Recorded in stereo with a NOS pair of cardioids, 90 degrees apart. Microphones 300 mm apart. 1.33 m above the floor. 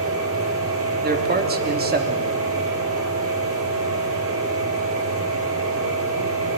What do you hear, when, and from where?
0.0 s a machine running: 45° right, 6.5 m
1.0 s a man speaking: 30° right, 3.5 m